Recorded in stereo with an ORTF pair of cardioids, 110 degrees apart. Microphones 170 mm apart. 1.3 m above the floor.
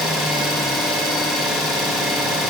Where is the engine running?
Straight ahead, 0.8 m.